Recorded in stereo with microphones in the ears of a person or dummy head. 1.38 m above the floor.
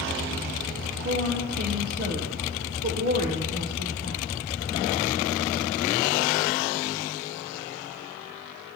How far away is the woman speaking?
About 0.8 m.